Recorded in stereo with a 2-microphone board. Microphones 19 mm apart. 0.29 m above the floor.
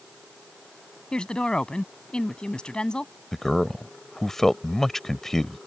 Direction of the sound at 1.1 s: 55° left (ahead or behind).